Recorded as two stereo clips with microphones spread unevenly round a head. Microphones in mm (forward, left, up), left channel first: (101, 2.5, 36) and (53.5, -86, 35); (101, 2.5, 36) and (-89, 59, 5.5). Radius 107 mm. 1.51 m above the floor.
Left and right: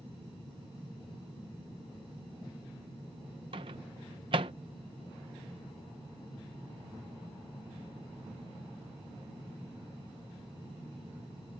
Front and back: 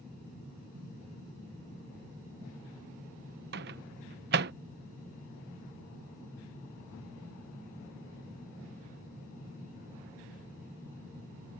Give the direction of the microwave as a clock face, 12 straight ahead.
5 o'clock.